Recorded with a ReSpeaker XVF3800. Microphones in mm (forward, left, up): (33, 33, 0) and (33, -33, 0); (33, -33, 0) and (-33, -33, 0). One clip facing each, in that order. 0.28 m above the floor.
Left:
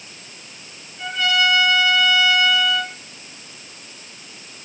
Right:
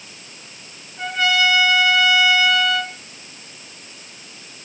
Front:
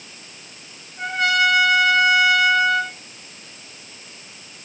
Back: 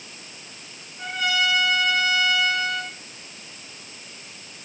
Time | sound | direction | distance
1.0 | a trumpet | 30° right | 6 m